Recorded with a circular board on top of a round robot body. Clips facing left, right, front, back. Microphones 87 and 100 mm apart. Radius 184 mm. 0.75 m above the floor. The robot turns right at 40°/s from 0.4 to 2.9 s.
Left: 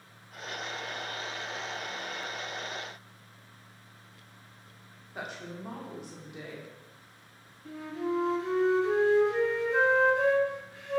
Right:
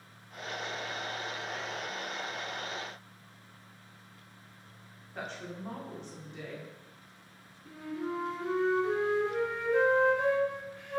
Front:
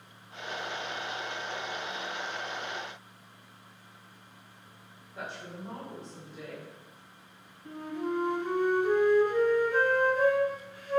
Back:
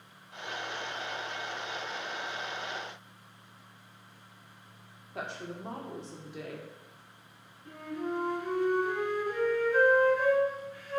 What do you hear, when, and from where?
5.2 s a woman speaking: 170° left, 2.5 m
7.7 s a flute: 70° left, 3 m